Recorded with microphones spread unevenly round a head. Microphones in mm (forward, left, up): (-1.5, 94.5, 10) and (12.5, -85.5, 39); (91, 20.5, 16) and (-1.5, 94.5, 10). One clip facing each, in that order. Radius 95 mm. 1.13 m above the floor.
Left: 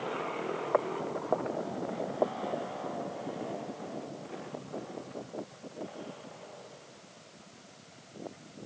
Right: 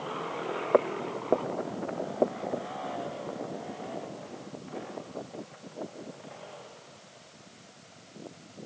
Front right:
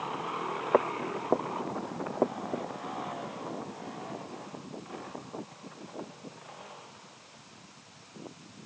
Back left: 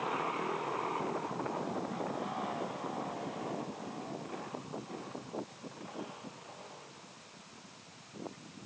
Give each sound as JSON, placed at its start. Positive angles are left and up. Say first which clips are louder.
{"t": 0.7, "sound": "footsteps", "louder": "right 6 dB, front right 8 dB", "azimuth_deg": -45}